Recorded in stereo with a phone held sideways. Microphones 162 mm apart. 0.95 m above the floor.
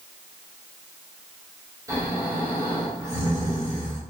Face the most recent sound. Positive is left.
turn(degrees=-20)  # may be behind; listen again after turning